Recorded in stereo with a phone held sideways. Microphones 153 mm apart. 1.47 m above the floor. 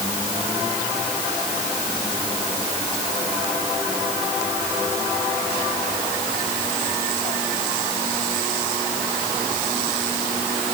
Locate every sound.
Only background noise.